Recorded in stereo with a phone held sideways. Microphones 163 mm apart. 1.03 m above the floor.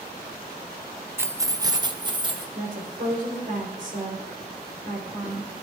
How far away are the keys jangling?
About 0.5 m.